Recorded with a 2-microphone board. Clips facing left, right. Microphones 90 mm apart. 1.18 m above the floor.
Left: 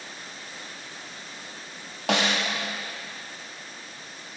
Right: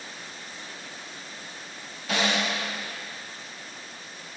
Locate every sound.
2.1 s a snare drum: 75° left (ahead or behind), 1.3 m